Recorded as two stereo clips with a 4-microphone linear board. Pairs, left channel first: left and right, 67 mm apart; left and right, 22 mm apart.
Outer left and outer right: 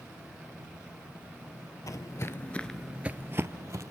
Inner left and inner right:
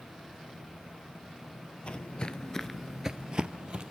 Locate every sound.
1.9 s footsteps: 55° left (ahead or behind), 1.3 m; by 3.9 s 50° right (ahead or behind), 1.8 m